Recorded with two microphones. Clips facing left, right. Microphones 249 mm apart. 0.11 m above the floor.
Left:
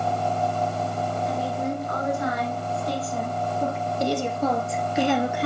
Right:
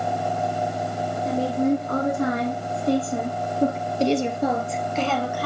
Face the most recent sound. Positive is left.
turn(degrees=25)  # may be behind; listen again after turning